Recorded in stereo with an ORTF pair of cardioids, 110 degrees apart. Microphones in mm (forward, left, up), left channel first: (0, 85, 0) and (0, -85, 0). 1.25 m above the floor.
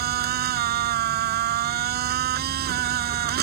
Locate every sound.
0.0 s a machine running: 70° right